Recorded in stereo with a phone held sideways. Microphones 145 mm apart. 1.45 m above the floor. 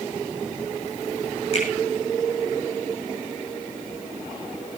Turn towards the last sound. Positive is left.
turn(degrees=45)  # may be behind; listen again after turning